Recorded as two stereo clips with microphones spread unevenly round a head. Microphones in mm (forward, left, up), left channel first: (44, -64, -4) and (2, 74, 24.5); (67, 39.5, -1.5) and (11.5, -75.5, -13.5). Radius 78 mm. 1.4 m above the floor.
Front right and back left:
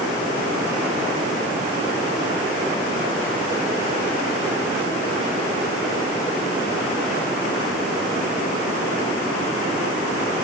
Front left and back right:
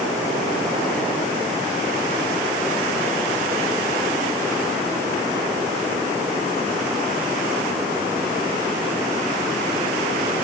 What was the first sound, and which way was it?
Only background noise.